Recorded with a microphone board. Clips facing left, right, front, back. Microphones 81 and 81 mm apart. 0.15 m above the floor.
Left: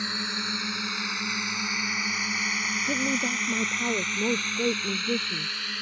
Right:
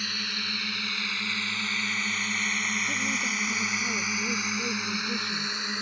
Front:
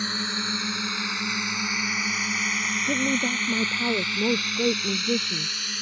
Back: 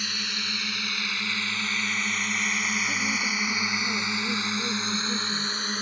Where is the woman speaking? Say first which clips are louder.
Left 3 dB, front 4 dB; 40° left.